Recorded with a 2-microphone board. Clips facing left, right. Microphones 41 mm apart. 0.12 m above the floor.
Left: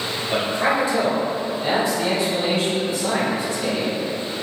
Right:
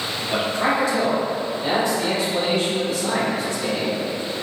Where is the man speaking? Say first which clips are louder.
Left 1 dB; 10° left (ahead or behind), 1.9 m; by 4.0 s 15° left (ahead or behind), 3.5 m.